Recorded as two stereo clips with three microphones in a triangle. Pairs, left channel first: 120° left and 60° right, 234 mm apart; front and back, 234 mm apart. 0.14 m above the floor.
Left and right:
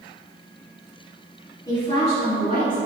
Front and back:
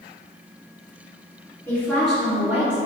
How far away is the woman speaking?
About 1.7 m.